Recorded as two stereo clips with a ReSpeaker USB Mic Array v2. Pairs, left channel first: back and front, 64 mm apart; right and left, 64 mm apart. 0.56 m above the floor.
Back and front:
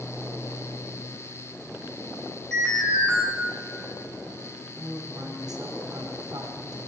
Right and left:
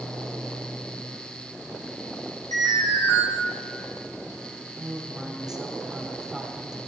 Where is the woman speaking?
5° left, 3.5 m.